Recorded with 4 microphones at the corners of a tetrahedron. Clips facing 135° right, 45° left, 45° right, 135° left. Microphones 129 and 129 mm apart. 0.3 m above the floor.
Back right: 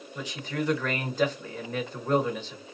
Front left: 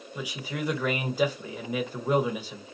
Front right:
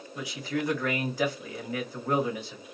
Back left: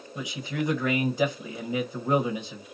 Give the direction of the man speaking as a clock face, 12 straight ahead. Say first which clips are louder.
Back right 2 dB, even; 8 o'clock.